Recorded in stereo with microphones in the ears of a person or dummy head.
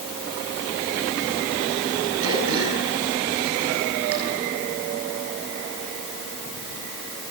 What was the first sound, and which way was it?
Throat clearing, 75° right (ahead or behind).